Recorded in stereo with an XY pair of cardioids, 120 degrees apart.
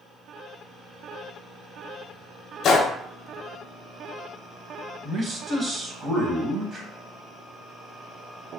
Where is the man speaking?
40° right, 0.9 m.